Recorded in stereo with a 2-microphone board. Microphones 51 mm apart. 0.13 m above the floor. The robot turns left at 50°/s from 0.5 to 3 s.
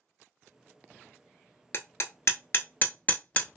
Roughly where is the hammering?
Left.